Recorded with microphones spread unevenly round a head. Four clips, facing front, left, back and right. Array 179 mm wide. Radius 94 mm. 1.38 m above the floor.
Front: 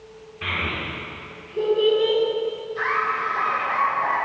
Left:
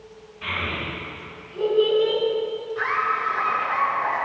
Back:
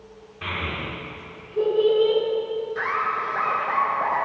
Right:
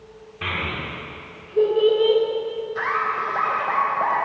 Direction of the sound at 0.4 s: 80° right.